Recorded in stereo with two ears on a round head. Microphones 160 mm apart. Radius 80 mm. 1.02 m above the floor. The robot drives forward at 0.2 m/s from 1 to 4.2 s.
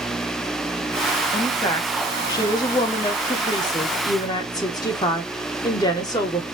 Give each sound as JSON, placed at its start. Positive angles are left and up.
{"t": 1.3, "sound": "a woman speaking", "side_deg": 20, "distance_m": 0.9}